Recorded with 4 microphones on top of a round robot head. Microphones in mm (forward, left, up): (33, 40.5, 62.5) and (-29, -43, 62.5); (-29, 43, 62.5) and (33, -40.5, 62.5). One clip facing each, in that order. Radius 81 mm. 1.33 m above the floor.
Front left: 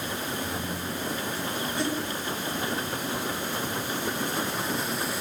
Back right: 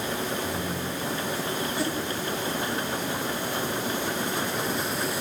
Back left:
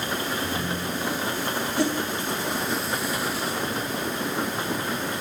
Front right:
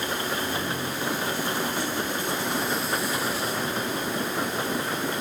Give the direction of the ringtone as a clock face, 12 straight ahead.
7 o'clock.